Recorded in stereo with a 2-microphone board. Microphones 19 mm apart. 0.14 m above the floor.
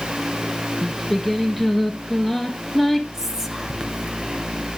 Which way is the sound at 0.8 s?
5° right (ahead or behind).